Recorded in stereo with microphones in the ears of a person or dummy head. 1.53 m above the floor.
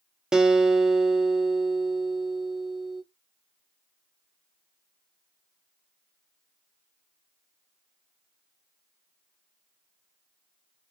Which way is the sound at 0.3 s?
5° right (ahead or behind).